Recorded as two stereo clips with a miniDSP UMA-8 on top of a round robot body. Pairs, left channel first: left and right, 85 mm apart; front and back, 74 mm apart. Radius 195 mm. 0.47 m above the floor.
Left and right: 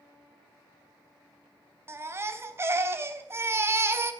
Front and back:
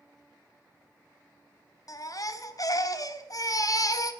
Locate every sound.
1.9 s a baby crying: 35° right, 1.6 m